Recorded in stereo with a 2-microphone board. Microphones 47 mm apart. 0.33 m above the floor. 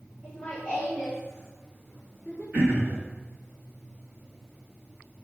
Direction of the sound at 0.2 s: 25° left (ahead or behind).